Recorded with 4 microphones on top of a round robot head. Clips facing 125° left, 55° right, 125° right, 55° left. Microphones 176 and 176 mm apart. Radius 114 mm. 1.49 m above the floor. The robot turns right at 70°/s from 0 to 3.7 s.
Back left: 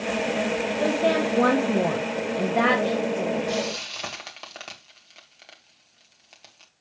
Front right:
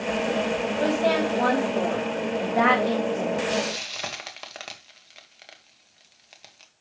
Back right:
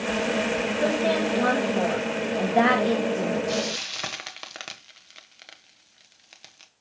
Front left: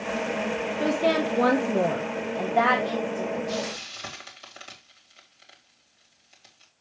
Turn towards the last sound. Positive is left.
turn(degrees=-145)